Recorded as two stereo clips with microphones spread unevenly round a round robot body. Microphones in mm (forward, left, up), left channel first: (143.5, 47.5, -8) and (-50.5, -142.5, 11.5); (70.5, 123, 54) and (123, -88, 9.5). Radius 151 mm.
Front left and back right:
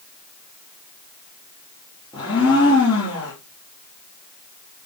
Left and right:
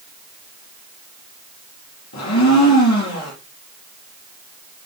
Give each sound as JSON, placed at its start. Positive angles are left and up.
{"t": 2.1, "sound": "a blender", "azimuth_deg": 120, "distance_m": 5.0}